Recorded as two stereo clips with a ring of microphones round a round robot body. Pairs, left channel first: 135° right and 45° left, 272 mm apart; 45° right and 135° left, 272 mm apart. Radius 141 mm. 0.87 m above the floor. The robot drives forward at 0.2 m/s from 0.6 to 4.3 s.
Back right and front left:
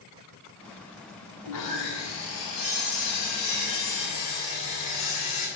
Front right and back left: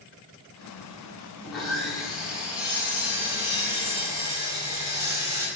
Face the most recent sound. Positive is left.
turn(degrees=-145)